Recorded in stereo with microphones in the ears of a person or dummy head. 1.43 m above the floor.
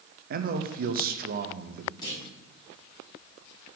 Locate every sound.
0.3 s a man speaking: 45° right (ahead or behind), 0.5 m
2.0 s a clunk: 25° left (ahead or behind), 3 m